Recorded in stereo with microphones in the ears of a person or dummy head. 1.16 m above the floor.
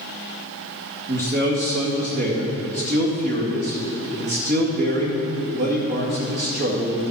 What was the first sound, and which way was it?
A man speaking, 50° right (ahead or behind).